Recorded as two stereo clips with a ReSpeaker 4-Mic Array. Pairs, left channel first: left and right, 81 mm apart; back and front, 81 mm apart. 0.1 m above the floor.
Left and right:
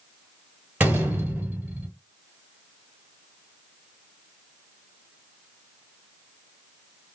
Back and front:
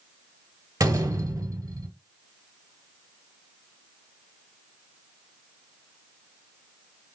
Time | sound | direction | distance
0.8 | a door slam | 25° right | 1.2 m